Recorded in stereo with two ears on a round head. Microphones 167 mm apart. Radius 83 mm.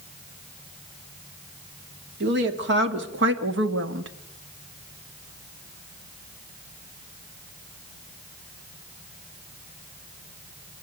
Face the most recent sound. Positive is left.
turn(degrees=-70)  # may be behind; listen again after turning